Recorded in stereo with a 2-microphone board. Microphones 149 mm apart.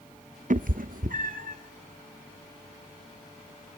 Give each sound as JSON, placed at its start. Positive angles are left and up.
{"t": 0.5, "sound": "a cat meowing", "side_deg": -60, "distance_m": 0.6}